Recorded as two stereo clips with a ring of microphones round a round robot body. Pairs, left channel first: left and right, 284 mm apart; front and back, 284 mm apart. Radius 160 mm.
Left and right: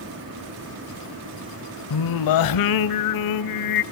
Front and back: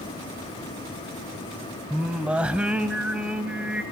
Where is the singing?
95° left, 0.7 m.